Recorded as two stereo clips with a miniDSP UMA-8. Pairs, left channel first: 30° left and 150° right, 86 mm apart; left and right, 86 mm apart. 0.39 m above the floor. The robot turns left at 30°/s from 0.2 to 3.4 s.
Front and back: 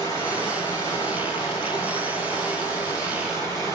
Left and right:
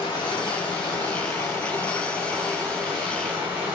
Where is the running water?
75° left, 2 m; by 3.8 s 20° right, 2 m.